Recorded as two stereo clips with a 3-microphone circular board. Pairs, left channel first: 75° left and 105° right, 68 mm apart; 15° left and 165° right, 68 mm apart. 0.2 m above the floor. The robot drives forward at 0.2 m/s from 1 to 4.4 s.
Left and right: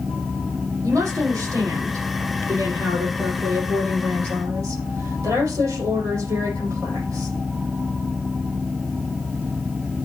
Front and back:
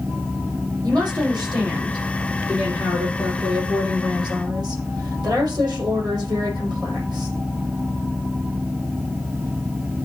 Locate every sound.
0.8 s a woman speaking: 145° right, 7.5 m; by 7.4 s 150° right, 8 m